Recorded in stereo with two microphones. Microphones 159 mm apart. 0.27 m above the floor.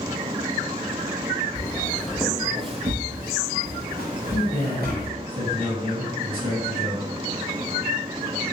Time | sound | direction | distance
1.6 | footsteps | 20° left (ahead or behind) | 0.8 m
4.3 | a man speaking | 35° right (ahead or behind) | 1.4 m